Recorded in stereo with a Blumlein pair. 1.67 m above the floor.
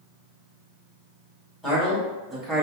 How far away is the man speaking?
About 2.0 m.